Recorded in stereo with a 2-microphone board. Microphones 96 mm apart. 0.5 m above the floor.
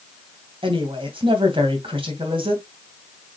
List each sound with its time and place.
0.6 s a woman speaking: 65° right (ahead or behind), 3 m